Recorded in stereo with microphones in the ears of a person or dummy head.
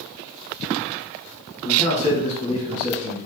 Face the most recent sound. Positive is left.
turn(degrees=40)  # may be behind; listen again after turning